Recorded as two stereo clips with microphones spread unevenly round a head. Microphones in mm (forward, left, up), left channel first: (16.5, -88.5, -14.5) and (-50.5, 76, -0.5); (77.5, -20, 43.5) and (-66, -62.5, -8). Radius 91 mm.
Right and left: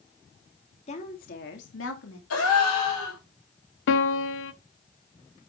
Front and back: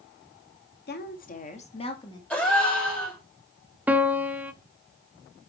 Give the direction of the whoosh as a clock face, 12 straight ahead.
I don't hear a whoosh.